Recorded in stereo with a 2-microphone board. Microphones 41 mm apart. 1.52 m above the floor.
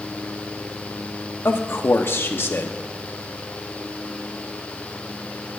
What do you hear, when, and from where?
1.4 s a man speaking: 70° left (ahead or behind), 0.9 m